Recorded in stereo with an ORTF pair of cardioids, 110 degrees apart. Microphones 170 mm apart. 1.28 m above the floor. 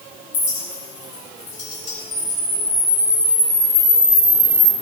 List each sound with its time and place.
0.3 s a clink: 45° left, 3 m
2.1 s a camera shutter: 30° left, 4 m